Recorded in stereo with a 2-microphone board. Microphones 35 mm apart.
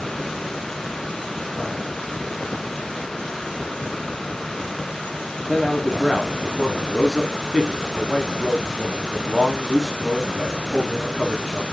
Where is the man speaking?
5° right (ahead or behind), 1.1 m.